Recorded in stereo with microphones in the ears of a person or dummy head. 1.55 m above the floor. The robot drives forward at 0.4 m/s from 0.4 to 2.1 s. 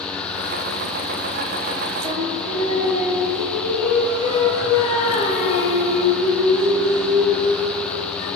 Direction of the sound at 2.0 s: 20° right (ahead or behind).